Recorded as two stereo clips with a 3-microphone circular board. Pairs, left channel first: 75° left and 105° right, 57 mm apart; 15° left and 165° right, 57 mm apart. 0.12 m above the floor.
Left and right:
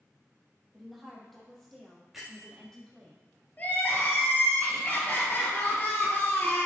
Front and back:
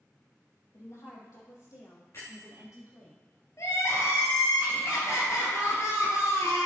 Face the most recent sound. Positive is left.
turn(degrees=20)